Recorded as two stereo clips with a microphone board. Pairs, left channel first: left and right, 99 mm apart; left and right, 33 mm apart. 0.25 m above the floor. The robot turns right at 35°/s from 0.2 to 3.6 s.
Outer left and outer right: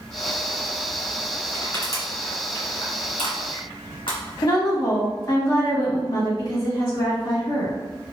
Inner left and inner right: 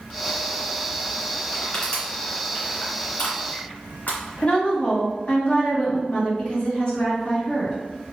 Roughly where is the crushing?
Left.